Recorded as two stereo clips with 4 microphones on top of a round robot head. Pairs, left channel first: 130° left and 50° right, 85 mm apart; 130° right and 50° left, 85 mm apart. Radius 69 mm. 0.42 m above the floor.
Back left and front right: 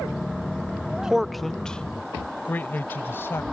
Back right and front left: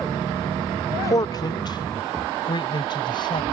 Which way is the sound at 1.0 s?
125° right.